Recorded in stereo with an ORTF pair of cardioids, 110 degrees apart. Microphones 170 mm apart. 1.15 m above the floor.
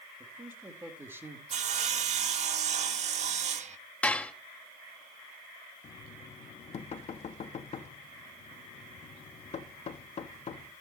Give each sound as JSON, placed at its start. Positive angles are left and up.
{"t": 0.2, "sound": "a man speaking", "azimuth_deg": -15, "distance_m": 2.5}
{"t": 1.5, "sound": "sawing", "azimuth_deg": -45, "distance_m": 1.0}
{"t": 4.0, "sound": "dishes clattering", "azimuth_deg": 10, "distance_m": 1.1}
{"t": 5.8, "sound": "knocking", "azimuth_deg": 40, "distance_m": 1.6}